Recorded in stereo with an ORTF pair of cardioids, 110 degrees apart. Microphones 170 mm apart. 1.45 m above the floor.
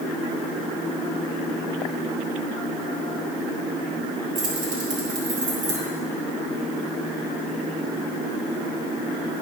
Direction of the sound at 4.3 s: 50° right.